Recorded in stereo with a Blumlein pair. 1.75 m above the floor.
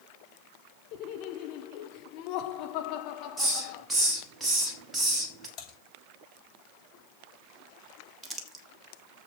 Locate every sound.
0.9 s laughter: 40° left, 1.8 m
3.4 s a hiss: 10° right, 2.5 m
5.6 s typing on a keyboard: 25° left, 6.5 m
8.2 s crumpling: 15° right, 1.7 m